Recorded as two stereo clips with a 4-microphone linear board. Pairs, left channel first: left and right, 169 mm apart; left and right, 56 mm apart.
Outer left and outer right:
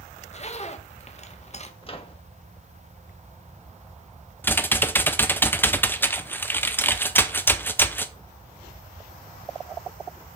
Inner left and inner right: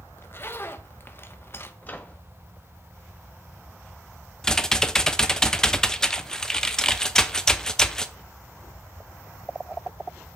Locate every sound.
0.2 s a zipper: 40° left (ahead or behind), 1.0 m
1.8 s a microwave: 35° left (ahead or behind), 1.4 m
4.4 s typing on a keyboard: 10° left (ahead or behind), 0.7 m